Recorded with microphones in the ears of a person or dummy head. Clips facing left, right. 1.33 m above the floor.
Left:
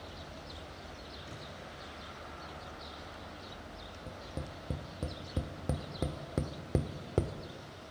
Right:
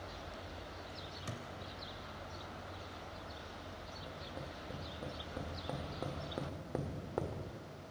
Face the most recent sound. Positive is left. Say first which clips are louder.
# left 4 dB
turn(degrees=35)  # may be behind; listen again after turning